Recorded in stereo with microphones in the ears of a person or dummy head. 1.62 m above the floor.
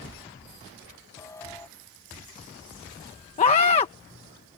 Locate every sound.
1.2 s an alarm: 15° left (ahead or behind)
3.4 s a scream: 35° left (ahead or behind)